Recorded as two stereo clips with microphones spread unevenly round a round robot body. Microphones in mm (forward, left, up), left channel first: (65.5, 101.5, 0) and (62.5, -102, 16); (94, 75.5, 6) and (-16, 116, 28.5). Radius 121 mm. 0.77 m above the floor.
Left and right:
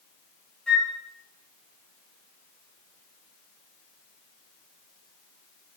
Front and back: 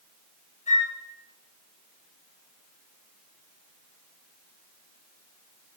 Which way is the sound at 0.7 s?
5° left.